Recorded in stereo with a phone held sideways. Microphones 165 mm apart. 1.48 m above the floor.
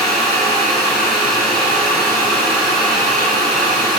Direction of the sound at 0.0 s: Centre (ahead or behind).